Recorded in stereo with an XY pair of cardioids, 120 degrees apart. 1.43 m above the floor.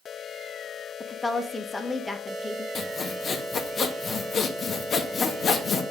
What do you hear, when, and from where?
1.0 s a woman speaking: 20° left, 1.2 m
2.8 s sawing: 45° left, 1.1 m